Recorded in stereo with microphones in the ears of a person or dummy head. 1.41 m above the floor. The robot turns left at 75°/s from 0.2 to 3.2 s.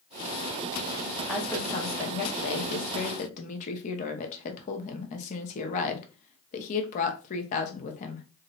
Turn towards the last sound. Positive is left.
turn(degrees=30)